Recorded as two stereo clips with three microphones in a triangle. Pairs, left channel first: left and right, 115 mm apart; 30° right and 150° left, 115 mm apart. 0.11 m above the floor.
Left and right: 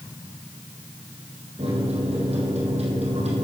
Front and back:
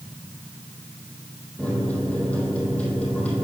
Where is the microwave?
110° right, 3 m.